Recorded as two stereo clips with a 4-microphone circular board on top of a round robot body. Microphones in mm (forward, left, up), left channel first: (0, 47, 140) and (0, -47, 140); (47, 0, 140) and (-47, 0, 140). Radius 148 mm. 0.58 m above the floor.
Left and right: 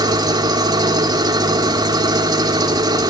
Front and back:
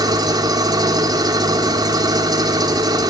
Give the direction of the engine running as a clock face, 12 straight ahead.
5 o'clock.